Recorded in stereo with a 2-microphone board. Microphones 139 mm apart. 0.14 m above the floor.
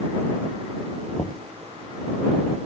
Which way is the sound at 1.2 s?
35° left (ahead or behind).